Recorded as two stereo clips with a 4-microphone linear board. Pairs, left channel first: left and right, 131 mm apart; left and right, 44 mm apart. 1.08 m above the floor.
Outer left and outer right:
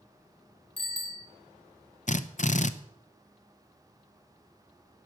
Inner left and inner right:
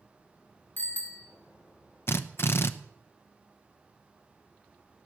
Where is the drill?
60° left (ahead or behind), 0.8 m.